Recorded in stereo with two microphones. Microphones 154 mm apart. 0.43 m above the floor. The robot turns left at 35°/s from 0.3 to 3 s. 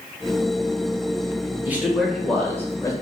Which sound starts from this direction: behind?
A man speaking, at 1.6 s.